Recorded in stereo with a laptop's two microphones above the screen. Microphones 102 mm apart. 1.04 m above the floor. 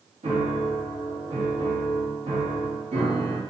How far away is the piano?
About 1.4 m.